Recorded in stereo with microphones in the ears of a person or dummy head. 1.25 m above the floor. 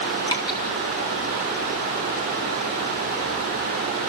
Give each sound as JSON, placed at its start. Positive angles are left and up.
{"t": 0.3, "sound": "dripping", "side_deg": 25, "distance_m": 1.7}